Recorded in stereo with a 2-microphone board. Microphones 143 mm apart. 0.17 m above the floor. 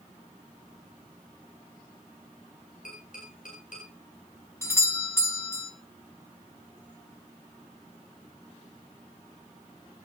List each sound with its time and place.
2.9 s tapping: 65° left (ahead or behind), 9 m
4.6 s a doorbell: 20° left (ahead or behind), 1.4 m